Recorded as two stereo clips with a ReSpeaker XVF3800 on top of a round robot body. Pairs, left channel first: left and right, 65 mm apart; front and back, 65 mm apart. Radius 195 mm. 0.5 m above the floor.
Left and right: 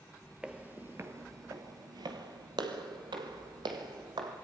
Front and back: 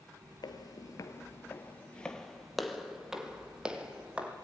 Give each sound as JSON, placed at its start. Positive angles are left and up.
{"t": 0.4, "sound": "footsteps", "azimuth_deg": -15, "distance_m": 1.0}